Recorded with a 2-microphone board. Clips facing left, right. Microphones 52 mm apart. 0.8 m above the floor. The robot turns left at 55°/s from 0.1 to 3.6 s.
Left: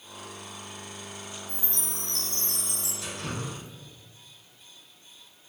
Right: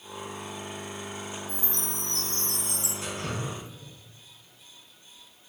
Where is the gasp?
No gasp in this recording.